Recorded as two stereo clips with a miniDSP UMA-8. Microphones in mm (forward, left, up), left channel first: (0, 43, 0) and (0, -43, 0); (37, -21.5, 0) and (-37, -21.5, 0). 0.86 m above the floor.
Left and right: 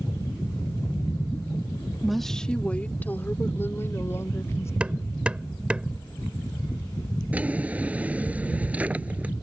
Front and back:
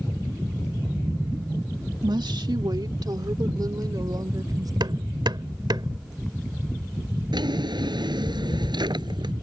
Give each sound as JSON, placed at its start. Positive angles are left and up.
{"t": 2.0, "sound": "a woman speaking", "azimuth_deg": -175}
{"t": 4.8, "sound": "hammering", "azimuth_deg": -165}
{"t": 7.3, "sound": "a drawer", "azimuth_deg": -165}